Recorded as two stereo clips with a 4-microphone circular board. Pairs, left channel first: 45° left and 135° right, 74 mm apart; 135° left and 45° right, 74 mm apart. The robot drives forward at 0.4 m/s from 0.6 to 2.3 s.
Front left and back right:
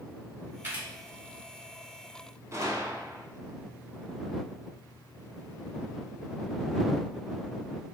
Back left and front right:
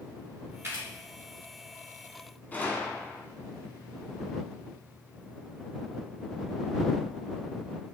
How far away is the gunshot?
About 0.5 m.